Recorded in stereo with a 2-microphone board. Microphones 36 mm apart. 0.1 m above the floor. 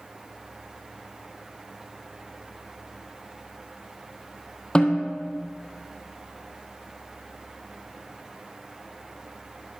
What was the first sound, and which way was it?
A snare drum, 30° left (ahead or behind).